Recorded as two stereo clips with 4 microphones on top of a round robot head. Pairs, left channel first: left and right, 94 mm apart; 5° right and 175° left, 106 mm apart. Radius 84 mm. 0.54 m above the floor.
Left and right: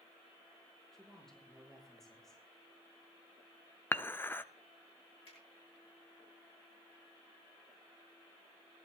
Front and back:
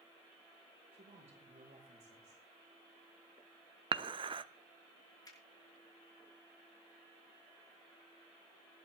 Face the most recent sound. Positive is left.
turn(degrees=50)